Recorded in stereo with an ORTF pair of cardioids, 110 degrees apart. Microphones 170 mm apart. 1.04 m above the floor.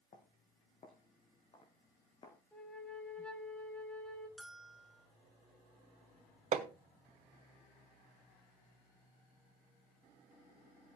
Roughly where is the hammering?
Ahead right.